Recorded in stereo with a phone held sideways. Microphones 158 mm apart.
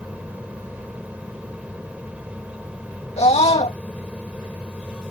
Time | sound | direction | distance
0.0 | a fan | 10° right (ahead or behind) | ?
3.2 | a scream | 40° left (ahead or behind) | ?